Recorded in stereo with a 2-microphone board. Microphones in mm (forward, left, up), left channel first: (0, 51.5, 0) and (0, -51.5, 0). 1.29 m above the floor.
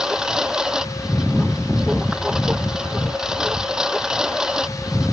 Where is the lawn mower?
5° right (ahead or behind).